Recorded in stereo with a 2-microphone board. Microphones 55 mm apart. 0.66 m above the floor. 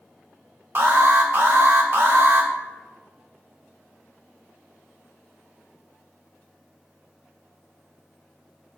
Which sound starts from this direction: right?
An alarm, at 0.8 s.